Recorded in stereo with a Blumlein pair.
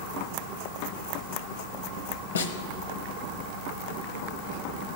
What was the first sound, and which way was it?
A snare drum, 70° left.